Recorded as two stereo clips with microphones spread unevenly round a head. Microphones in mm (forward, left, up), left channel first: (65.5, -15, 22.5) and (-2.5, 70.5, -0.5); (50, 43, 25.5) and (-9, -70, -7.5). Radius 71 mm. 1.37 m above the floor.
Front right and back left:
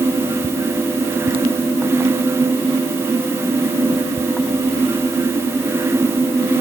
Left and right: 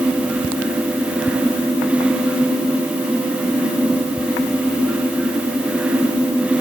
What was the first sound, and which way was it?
Only background noise.